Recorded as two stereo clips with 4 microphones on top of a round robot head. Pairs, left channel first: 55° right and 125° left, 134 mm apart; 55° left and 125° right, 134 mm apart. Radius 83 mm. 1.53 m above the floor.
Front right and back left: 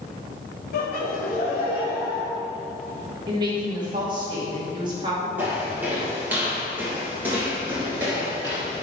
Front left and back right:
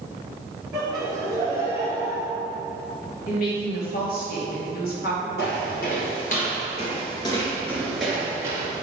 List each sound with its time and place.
0.7 s laughter: 45° right, 1.6 m; by 2.3 s 15° left, 2.5 m
3.3 s a woman speaking: 70° left, 2.5 m
5.4 s footsteps: 50° left, 2.5 m; by 8.8 s 160° right, 1.6 m